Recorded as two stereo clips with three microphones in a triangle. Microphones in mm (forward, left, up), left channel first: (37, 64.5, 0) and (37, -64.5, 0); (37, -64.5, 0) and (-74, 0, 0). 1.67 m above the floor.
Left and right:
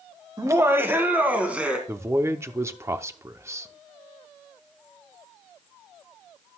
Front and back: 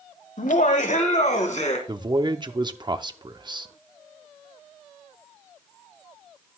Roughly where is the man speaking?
Behind right.